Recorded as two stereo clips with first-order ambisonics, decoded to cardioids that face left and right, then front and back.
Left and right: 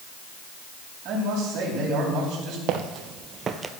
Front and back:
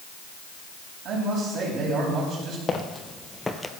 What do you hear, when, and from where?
1.1 s a man speaking: 135° right, 5 m
2.7 s footsteps: 70° right, 1.2 m; by 3.7 s 80° right, 0.7 m